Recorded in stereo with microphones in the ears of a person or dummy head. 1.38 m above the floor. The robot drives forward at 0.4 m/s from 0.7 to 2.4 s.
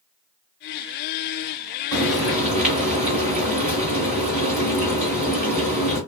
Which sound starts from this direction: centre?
Frying, at 1.9 s.